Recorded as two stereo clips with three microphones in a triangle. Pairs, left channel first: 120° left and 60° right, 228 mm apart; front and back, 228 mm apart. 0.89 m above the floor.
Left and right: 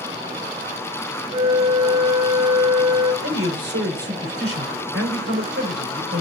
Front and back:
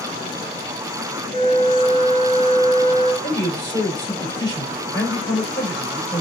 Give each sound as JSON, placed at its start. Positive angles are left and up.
{"t": 1.3, "sound": "a flute", "azimuth_deg": -125, "distance_m": 1.7}
{"t": 3.2, "sound": "a man speaking", "azimuth_deg": -70, "distance_m": 3.5}